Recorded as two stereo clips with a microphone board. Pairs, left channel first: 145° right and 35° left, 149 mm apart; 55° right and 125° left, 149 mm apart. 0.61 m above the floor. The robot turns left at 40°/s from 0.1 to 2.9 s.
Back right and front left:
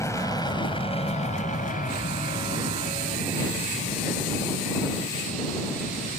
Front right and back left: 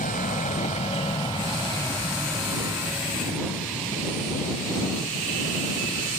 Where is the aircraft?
75° right; by 6.2 s 130° right.